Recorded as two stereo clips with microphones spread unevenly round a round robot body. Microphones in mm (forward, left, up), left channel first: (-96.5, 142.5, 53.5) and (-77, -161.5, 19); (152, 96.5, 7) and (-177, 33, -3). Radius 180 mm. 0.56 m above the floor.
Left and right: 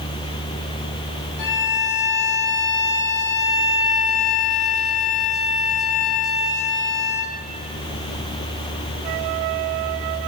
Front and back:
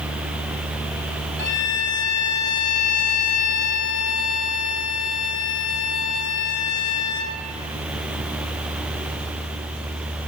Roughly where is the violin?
Left.